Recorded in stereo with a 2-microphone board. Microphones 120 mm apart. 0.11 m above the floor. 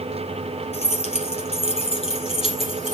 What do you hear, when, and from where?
0.7 s keys jangling: 60° left (ahead or behind), 1.7 m; by 2.9 s 45° left (ahead or behind), 2.5 m